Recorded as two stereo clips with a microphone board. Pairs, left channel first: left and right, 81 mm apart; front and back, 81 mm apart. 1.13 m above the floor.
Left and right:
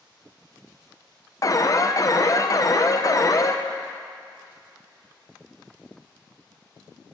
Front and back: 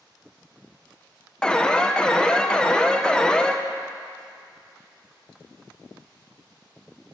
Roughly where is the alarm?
Left.